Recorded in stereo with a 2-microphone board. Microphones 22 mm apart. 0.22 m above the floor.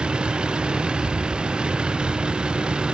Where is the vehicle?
45° right (ahead or behind).